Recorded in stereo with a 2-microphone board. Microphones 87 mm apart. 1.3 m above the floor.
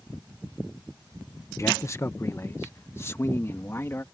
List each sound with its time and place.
1.6 s a man speaking: 35° left (ahead or behind); by 4.0 s 30° left (ahead or behind)